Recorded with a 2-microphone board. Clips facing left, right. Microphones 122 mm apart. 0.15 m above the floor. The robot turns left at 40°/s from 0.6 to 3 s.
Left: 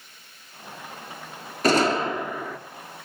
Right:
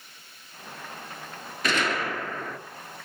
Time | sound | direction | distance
1.6 | a gunshot | 45° left | 0.5 m